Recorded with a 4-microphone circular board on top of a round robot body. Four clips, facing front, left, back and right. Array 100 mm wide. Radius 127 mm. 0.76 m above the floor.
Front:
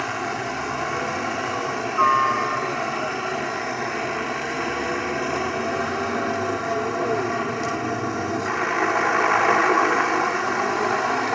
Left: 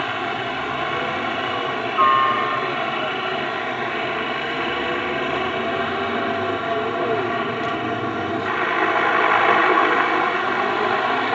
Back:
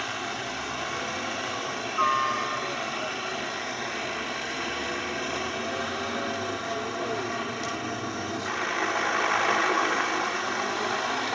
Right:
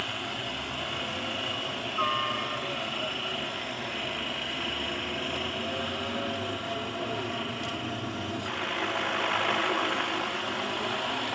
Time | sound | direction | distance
0.0 | a helicopter | 60° left | ?